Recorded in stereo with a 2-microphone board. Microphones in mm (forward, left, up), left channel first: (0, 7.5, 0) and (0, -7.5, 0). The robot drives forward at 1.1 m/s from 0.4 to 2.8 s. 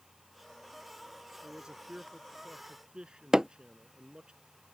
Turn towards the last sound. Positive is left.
turn(degrees=-45)  # may be behind; listen again after turning